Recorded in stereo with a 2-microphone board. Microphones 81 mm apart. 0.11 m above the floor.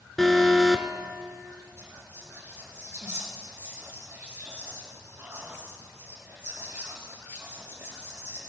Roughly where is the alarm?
Centre.